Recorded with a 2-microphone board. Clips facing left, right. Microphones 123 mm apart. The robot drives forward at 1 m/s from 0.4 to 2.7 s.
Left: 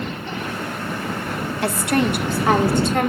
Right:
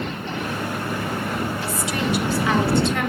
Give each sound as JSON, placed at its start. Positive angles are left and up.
{"t": 1.6, "sound": "a woman speaking", "side_deg": 65, "distance_m": 2.5}